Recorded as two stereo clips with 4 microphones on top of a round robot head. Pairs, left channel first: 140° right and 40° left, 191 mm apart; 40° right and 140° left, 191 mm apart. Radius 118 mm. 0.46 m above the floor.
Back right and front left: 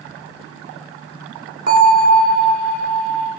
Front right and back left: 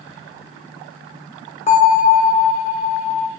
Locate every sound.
1.7 s a bell: 10° left, 0.6 m